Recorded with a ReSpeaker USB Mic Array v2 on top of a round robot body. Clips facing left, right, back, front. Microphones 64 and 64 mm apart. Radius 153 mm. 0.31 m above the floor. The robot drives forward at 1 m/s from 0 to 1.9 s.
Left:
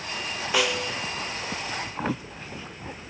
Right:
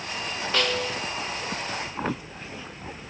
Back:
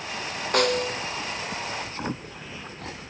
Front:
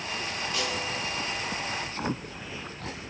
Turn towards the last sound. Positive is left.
turn(degrees=175)